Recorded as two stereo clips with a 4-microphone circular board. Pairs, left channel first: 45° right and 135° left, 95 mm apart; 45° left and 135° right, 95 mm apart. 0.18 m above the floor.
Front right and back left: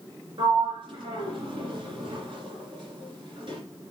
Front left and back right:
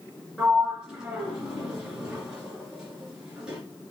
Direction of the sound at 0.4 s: 145° left.